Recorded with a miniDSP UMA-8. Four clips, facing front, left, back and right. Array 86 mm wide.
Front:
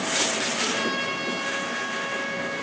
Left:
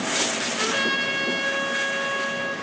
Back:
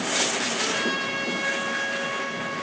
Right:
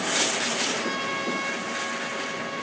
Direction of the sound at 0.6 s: 95° left.